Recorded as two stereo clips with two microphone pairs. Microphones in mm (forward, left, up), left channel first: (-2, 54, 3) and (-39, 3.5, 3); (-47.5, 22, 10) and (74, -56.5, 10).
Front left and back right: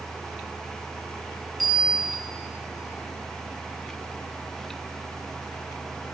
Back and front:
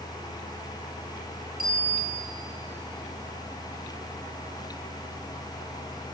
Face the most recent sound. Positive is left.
turn(degrees=-35)